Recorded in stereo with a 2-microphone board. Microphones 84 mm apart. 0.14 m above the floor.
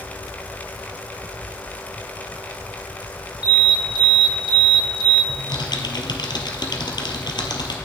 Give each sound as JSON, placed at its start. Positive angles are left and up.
{"t": 3.4, "sound": "an alarm", "side_deg": 65, "distance_m": 4.0}
{"t": 5.3, "sound": "typing on a keyboard", "side_deg": 65, "distance_m": 1.5}